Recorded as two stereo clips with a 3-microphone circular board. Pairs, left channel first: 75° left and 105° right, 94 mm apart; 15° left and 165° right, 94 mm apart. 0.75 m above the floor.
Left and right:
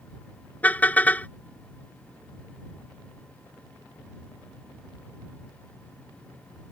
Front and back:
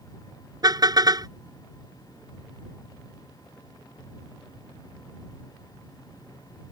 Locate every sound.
0.6 s a car horn: 150° left